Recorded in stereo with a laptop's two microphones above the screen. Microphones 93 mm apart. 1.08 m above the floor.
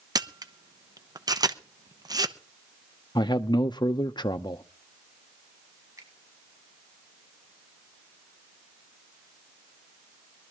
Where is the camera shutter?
45° right (ahead or behind), 0.8 m.